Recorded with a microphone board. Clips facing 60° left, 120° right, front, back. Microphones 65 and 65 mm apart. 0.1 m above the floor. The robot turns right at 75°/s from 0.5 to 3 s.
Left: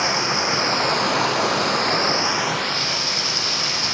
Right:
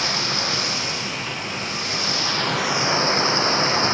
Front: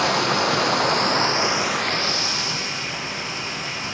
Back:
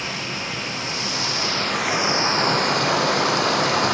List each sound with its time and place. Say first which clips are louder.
0.0 s running water: left 4 dB, front 9 dB; 5° right, 0.7 m; by 4.0 s straight behind, 0.7 m